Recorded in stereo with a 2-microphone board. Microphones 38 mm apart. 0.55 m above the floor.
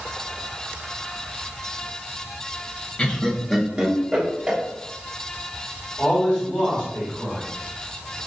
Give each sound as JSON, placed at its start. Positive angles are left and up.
{"t": 3.0, "sound": "laughter", "side_deg": 30, "distance_m": 0.7}
{"t": 6.0, "sound": "a man speaking", "side_deg": 10, "distance_m": 1.9}